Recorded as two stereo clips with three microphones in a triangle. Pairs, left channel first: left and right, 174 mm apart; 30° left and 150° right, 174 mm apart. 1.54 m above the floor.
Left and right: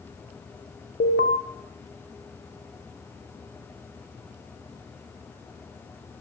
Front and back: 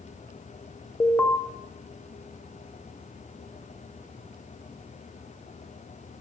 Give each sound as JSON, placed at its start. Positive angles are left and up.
{"t": 1.0, "sound": "an alarm", "azimuth_deg": 110, "distance_m": 0.9}